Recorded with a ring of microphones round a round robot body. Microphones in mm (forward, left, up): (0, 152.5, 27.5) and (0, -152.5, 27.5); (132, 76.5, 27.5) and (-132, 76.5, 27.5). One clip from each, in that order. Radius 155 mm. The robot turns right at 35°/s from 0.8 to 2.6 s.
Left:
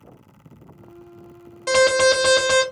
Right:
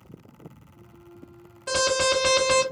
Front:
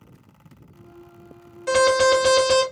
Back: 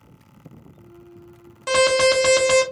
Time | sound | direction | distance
1.7 | an alarm | 135° left | 1.4 m